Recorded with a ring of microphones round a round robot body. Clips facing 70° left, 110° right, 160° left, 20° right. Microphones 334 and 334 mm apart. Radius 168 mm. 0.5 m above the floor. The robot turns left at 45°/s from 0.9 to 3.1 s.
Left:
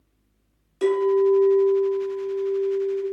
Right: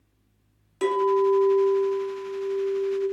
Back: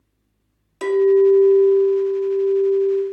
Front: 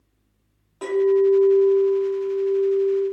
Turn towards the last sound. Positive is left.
turn(degrees=80)